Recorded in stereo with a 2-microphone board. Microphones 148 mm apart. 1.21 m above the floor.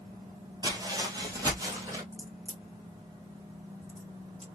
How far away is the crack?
About 1.9 m.